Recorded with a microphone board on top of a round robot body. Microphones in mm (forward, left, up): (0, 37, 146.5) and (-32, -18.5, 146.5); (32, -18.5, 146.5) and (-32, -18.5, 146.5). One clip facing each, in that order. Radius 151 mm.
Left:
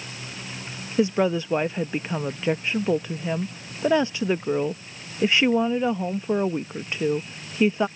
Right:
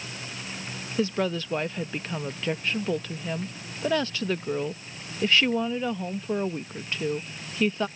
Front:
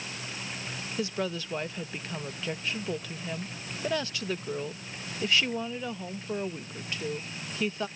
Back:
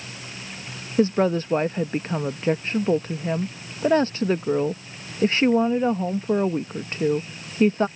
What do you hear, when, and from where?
1.0 s a woman speaking: 130° left